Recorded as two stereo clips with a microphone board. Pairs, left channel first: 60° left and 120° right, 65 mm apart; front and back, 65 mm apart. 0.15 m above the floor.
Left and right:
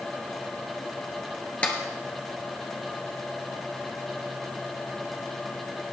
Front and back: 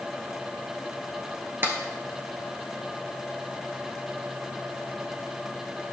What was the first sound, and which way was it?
A clap, 130° left.